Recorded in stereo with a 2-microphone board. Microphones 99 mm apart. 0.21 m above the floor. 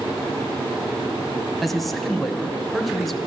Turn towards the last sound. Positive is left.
turn(degrees=0)  # may be behind; listen again after turning